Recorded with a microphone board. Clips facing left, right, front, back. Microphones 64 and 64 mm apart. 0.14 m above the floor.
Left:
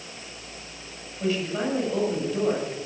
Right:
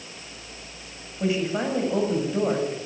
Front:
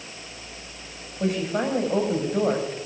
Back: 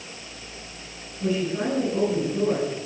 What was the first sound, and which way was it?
A woman speaking, 20° right.